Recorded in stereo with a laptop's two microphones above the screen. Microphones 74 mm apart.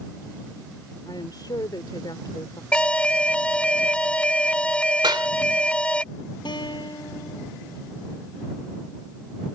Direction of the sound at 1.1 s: 75° left (ahead or behind).